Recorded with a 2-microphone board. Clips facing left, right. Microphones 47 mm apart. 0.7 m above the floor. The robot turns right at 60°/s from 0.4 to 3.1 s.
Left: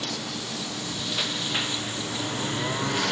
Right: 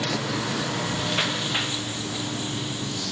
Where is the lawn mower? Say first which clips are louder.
Right 6 dB; 80° right; by 3.1 s 80° left.